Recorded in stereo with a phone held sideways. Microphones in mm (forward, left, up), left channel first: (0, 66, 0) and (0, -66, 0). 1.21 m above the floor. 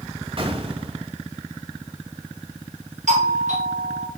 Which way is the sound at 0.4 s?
45° right (ahead or behind).